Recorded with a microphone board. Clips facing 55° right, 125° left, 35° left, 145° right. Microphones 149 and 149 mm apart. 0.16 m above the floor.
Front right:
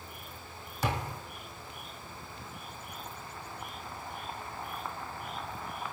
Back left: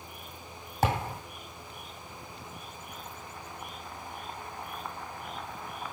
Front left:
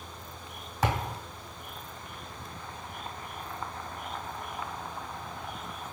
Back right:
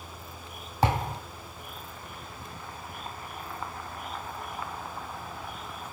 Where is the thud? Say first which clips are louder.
Back left 5 dB, back right 3 dB; 155° left, 2 m.